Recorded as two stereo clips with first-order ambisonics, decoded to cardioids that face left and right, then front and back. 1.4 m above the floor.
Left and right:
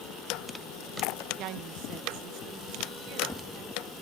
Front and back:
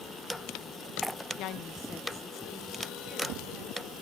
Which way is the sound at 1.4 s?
45° right.